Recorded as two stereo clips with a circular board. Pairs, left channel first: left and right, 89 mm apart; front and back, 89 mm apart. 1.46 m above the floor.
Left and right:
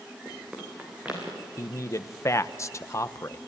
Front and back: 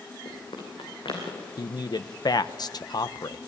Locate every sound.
0.2 s running footsteps: 10° right, 6.5 m; by 1.5 s 15° right, 7 m
1.6 s a man speaking: 35° left, 0.9 m